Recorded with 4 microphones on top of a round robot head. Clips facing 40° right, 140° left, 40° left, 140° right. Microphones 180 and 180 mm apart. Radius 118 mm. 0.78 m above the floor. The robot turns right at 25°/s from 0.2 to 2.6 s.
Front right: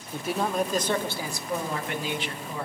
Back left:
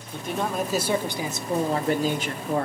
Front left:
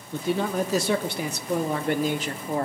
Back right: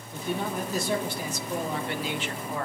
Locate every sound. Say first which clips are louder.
0.1 s a man speaking: front right 1 dB, front left 5 dB; 40° left, 1.1 m; by 2.7 s 100° left, 1.1 m